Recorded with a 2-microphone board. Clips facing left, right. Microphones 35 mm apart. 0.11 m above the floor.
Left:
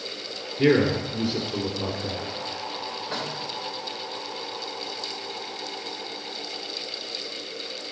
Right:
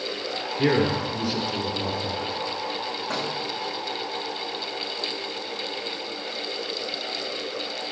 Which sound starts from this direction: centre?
A man speaking, at 0.6 s.